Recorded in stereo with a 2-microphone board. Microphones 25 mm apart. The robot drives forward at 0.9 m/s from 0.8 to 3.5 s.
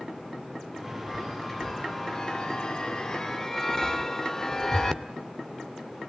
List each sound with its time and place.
1.1 s a chime: 10° left (ahead or behind), 1.6 m; by 5.0 s 20° left (ahead or behind), 0.9 m